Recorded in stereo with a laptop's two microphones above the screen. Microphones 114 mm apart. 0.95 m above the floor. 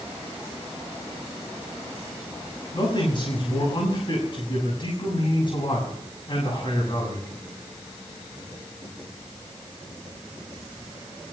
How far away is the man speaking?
About 6.5 m.